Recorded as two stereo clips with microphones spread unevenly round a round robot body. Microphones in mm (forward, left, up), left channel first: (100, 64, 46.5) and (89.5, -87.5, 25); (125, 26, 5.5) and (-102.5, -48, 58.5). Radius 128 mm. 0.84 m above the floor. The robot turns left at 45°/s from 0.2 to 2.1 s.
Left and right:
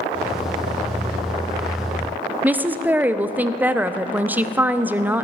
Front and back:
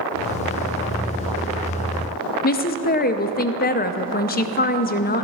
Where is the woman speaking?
20° right, 0.5 m.